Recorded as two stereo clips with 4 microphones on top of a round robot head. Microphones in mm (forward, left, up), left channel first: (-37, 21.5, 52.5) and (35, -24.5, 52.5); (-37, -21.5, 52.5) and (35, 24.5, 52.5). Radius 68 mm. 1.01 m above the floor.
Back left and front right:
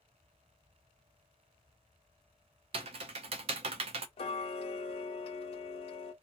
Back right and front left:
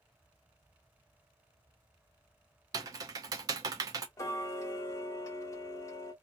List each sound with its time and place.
2.7 s typing on a keyboard: 15° right, 0.6 m
4.2 s ticking: 155° left, 0.8 m